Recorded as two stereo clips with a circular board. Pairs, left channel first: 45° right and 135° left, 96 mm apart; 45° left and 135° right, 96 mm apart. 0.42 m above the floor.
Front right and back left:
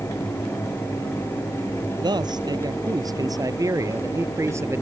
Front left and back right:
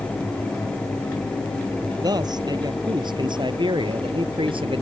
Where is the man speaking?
Straight behind; by 4.8 s 160° right.